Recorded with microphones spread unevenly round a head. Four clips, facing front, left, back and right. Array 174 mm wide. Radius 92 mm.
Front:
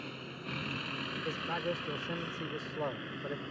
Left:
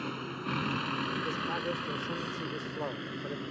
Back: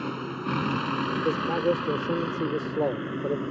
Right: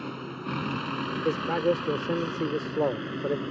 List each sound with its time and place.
0.0 s a vehicle: 170° right; by 3.5 s 155° right
1.2 s a man speaking: 135° right